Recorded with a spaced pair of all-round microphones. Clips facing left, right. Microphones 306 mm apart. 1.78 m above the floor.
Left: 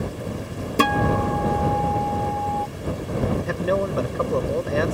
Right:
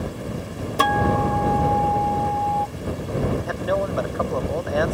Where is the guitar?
30° left (ahead or behind).